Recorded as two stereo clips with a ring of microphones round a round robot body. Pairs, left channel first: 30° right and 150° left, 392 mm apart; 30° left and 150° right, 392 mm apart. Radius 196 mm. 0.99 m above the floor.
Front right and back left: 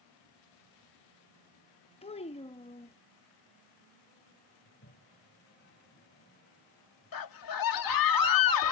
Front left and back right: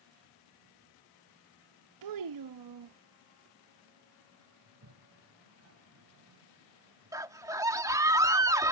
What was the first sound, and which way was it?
A child speaking, 105° right.